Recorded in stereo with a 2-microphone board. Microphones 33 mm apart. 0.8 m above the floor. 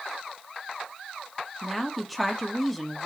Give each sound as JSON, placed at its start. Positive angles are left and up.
{"t": 1.6, "sound": "a woman speaking", "side_deg": -5, "distance_m": 1.2}